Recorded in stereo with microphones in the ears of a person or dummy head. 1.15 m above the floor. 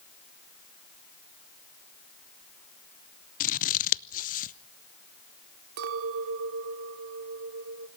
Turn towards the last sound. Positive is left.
turn(degrees=-65)  # may be behind; listen again after turning